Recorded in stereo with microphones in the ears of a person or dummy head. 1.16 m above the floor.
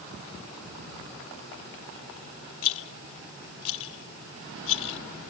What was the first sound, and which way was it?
A rattle, 75° left (ahead or behind).